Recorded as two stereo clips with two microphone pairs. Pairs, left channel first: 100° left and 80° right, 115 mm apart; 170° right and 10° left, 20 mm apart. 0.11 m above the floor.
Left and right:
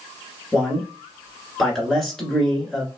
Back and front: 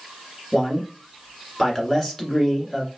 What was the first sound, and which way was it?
A man speaking, straight behind.